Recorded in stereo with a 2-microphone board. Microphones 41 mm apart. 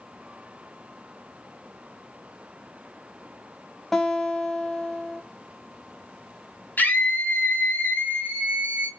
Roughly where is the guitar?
Centre.